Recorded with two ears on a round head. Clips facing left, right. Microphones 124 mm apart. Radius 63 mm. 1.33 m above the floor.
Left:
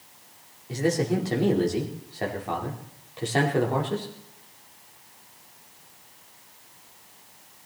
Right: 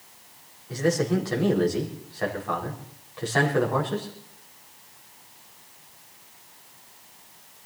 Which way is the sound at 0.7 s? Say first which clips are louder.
Right 1 dB; 25° left (ahead or behind).